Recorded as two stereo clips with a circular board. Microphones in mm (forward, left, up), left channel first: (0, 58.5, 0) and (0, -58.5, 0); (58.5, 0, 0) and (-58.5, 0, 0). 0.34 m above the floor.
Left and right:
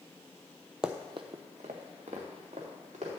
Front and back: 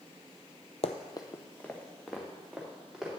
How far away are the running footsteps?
About 0.6 m.